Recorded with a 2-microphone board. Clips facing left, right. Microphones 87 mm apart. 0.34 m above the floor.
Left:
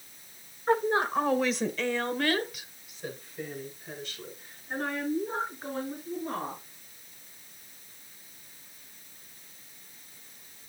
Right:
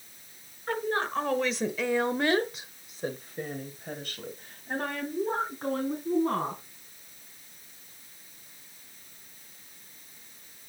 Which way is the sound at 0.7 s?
20° left (ahead or behind).